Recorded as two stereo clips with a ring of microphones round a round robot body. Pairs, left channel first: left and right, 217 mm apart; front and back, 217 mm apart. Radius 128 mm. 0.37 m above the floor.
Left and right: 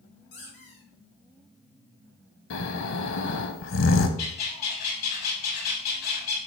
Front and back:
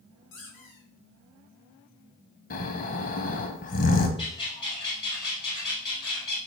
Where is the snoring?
55° left, 0.8 m.